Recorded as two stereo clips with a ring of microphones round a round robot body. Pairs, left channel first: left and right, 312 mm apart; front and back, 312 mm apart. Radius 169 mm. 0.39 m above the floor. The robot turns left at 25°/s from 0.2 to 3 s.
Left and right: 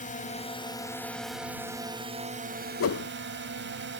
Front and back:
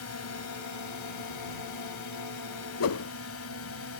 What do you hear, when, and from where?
0.0 s a drone: 30° left; by 4.0 s 40° right
2.8 s a whoosh: 45° left; by 3.1 s 40° left